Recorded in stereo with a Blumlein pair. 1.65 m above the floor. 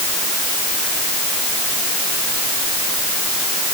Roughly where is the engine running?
No engine running in this recording.